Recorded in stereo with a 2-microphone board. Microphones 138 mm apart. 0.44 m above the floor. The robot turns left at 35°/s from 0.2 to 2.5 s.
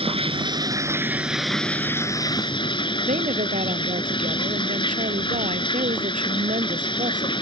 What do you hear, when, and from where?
0.0 s running water: 135° right; by 7.4 s 145° left
3.0 s a woman speaking: 65° right (ahead or behind)